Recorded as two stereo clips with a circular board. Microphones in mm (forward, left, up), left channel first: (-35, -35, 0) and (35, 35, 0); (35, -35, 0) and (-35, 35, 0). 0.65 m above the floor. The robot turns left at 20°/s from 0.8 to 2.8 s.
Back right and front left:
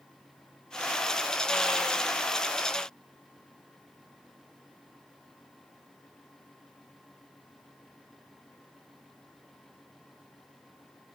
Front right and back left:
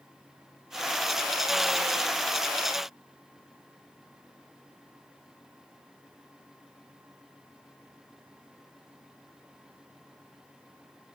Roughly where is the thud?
No thud in this recording.